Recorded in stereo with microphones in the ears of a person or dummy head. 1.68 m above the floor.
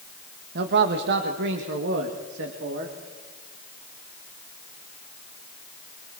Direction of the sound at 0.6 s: 65° right (ahead or behind).